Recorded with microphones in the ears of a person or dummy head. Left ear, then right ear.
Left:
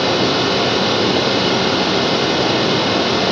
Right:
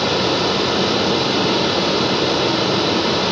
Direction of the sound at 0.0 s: 20° left (ahead or behind).